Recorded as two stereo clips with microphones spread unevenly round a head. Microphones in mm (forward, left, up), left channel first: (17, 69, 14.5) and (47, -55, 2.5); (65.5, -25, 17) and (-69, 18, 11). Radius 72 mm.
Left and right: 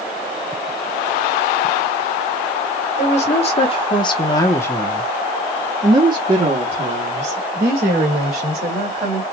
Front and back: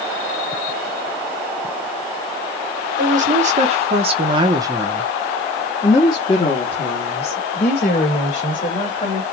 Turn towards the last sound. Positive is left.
turn(degrees=-50)